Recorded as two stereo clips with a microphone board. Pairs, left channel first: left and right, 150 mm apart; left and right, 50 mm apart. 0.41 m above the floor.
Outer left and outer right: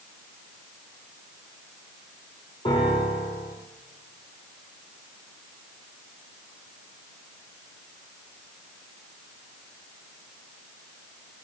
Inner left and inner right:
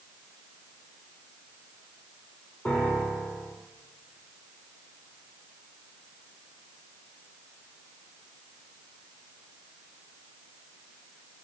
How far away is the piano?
About 5 m.